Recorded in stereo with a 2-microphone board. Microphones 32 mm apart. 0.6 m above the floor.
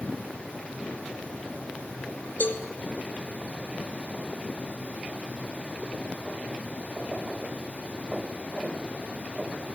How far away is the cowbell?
About 1.6 m.